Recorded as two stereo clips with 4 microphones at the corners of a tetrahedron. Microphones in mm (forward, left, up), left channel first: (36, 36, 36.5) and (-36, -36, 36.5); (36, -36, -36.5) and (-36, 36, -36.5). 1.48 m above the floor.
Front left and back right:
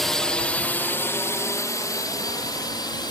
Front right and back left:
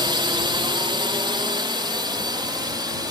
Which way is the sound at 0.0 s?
135° left.